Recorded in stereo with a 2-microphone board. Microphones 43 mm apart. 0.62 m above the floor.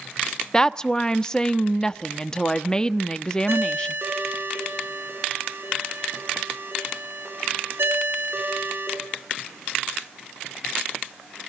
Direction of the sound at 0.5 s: 15° left (ahead or behind).